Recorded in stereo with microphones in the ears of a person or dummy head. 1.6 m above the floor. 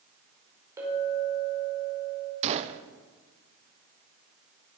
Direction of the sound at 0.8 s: 15° right (ahead or behind).